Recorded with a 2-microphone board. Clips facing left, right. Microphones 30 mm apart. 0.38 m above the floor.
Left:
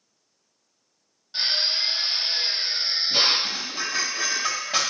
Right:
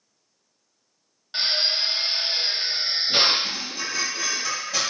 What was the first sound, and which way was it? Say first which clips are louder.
A drill: right 1 dB; 45° right (ahead or behind).